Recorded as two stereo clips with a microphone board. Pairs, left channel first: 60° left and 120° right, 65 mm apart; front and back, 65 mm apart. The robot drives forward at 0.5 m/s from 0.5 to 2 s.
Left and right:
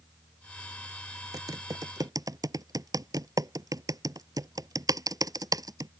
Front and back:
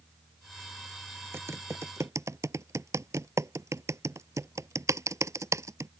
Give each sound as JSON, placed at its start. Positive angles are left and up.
{"t": 1.3, "sound": "typing on a keyboard", "azimuth_deg": -130}